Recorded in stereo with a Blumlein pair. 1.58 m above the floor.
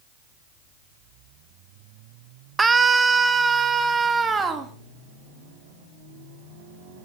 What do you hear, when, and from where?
2.6 s a scream: 15° right, 1.2 m